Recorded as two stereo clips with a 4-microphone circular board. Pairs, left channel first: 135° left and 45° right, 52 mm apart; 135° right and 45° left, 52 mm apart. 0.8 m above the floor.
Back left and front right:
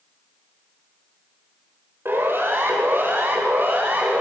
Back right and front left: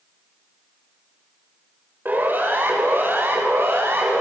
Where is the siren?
5° right, 5 m; by 4.2 s 5° left, 5.5 m.